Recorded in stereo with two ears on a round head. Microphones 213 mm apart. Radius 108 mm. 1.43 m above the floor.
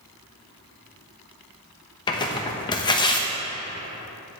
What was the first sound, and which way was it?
Tearing paper, 20° left (ahead or behind).